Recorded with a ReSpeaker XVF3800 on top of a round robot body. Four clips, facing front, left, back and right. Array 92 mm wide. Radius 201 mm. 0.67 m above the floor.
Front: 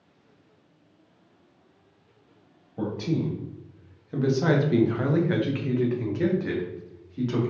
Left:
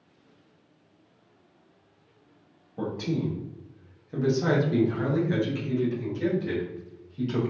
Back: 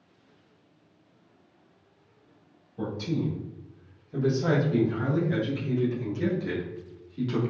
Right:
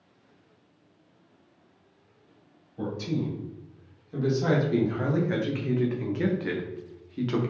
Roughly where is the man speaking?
Ahead left.